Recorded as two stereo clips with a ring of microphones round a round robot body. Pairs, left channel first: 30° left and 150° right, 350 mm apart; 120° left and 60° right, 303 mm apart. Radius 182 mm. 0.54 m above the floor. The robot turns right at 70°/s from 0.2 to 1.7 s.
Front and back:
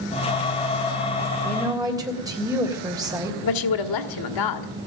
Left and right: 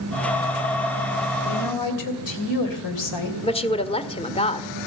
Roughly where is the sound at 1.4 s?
Left.